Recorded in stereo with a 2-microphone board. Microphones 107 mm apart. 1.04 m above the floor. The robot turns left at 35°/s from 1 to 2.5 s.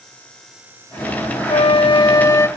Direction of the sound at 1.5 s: 60° left.